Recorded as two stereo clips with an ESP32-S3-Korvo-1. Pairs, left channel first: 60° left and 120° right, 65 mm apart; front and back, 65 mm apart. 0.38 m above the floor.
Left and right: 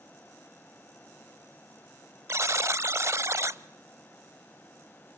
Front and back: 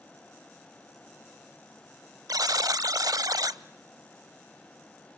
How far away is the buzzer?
About 0.6 m.